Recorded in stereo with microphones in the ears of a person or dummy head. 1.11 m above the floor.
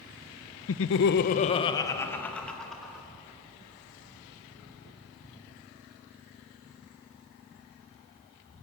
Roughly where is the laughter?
Left.